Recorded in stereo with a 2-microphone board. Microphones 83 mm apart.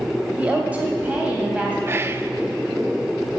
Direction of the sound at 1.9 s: 30° right (ahead or behind).